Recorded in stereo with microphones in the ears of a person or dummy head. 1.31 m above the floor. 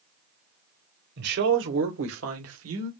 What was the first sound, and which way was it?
A man speaking, 55° right (ahead or behind).